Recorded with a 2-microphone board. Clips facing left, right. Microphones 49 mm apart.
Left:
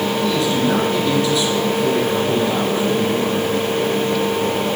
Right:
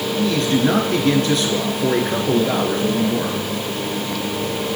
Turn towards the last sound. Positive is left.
turn(degrees=-55)  # may be behind; listen again after turning